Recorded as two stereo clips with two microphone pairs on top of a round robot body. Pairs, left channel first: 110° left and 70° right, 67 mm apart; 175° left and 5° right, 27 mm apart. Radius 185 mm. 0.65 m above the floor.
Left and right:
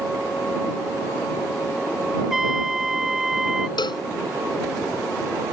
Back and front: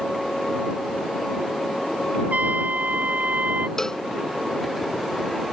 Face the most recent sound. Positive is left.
turn(degrees=105)